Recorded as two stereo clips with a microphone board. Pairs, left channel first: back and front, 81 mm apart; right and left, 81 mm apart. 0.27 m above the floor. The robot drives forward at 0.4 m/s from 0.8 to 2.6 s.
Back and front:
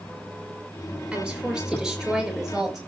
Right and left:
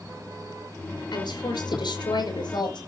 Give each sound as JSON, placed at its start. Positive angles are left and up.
{"t": 1.1, "sound": "a woman speaking", "azimuth_deg": -80, "distance_m": 4.0}